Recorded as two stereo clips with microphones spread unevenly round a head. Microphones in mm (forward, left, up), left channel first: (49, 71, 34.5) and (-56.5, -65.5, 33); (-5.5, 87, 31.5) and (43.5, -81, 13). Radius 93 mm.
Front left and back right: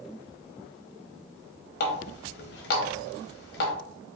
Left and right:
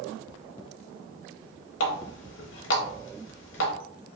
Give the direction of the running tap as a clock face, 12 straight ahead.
9 o'clock.